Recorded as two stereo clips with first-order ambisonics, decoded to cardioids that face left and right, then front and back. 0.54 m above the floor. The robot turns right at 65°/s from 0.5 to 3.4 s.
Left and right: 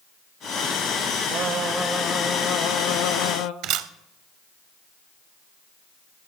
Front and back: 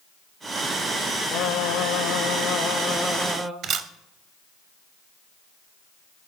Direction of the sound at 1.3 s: 35° right.